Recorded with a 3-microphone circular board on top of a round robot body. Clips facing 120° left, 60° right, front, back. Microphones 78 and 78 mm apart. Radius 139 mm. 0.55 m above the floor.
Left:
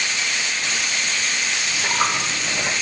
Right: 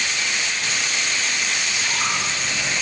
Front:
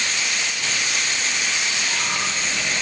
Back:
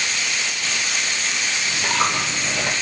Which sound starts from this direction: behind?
A dropped coin, at 1.6 s.